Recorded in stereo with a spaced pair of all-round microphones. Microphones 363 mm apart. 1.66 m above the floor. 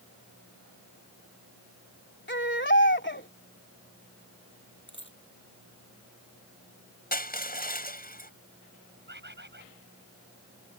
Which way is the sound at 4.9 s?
30° left (ahead or behind).